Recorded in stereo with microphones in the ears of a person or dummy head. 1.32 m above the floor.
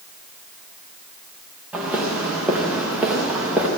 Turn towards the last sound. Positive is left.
turn(degrees=-10)  # may be behind; listen again after turning